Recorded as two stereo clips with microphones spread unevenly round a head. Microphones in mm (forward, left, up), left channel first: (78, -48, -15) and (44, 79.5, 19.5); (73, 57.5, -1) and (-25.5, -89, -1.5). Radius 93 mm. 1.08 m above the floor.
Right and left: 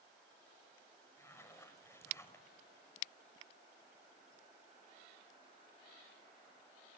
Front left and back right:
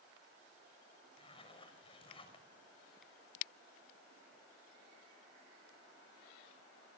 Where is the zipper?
5° right, 5.5 m.